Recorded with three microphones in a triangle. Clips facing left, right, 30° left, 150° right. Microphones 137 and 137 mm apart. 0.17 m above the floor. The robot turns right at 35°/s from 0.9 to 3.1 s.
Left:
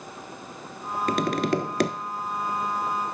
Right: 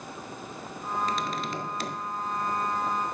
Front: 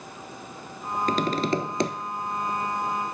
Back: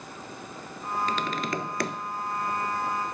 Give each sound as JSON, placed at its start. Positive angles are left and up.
{"t": 1.1, "sound": "tapping", "azimuth_deg": 70, "distance_m": 0.6}